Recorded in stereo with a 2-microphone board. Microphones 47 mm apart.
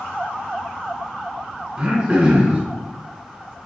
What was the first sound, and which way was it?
Throat clearing, 20° right (ahead or behind).